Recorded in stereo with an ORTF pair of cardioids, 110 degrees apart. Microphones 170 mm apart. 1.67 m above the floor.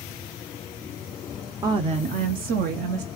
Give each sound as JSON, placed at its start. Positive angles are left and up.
{"t": 1.6, "sound": "a woman speaking", "azimuth_deg": -25, "distance_m": 0.7}